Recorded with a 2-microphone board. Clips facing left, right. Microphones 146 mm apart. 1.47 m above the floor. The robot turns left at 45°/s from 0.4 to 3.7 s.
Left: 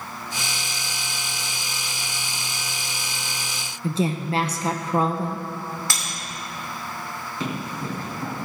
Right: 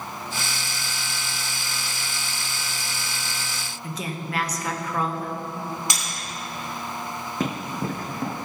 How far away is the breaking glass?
About 2.5 m.